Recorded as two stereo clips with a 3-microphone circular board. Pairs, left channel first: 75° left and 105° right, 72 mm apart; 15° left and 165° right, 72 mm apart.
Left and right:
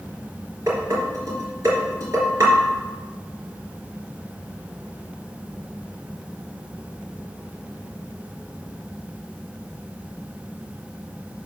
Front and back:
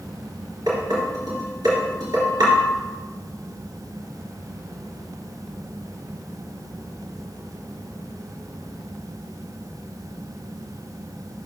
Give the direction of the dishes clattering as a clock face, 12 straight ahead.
5 o'clock.